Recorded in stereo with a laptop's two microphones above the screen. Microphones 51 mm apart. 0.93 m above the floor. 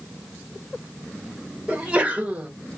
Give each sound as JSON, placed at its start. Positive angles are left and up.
{"t": 1.7, "sound": "a sneeze", "side_deg": -25, "distance_m": 1.1}